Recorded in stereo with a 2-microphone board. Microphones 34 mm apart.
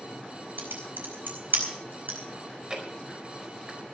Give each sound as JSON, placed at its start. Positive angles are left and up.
{"t": 0.6, "sound": "typing on a keyboard", "side_deg": -85, "distance_m": 4.5}
{"t": 2.4, "sound": "chewing", "side_deg": -25, "distance_m": 4.5}